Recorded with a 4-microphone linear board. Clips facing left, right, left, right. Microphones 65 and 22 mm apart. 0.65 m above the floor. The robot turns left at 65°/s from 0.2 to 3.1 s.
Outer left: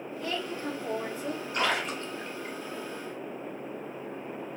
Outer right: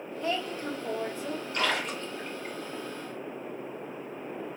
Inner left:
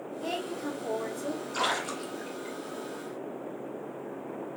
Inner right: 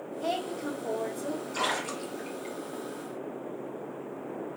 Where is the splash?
20° left (ahead or behind), 1.6 m; by 2.5 s 35° right (ahead or behind), 1.6 m.